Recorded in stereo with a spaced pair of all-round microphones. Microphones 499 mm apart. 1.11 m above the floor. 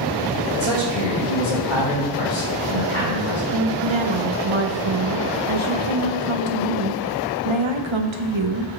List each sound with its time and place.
0.5 s a man speaking: 65° left (ahead or behind), 2.5 m
3.5 s a woman speaking: 65° right (ahead or behind), 0.8 m